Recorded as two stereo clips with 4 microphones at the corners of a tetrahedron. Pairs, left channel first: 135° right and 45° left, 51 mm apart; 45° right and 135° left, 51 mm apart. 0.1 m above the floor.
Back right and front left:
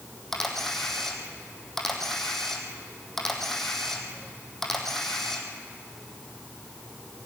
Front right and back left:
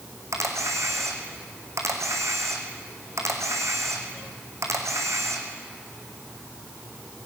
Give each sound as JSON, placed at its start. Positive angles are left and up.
{"t": 0.3, "sound": "a camera shutter", "azimuth_deg": 140, "distance_m": 3.0}